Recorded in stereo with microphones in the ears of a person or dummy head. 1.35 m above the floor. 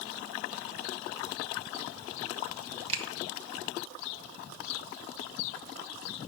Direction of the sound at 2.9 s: 35° right (ahead or behind).